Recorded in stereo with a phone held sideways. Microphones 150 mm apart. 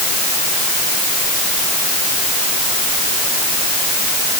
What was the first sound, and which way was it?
Only background noise.